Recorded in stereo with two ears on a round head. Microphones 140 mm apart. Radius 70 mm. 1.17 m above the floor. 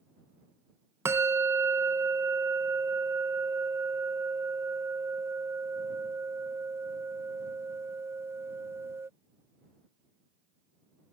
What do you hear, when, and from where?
1.1 s a bell: 15° right (ahead or behind)